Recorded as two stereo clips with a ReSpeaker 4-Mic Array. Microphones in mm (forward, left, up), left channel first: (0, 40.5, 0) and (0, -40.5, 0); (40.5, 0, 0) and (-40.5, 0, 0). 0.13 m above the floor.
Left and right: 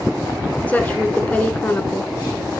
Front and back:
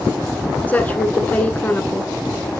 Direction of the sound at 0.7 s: 45° left.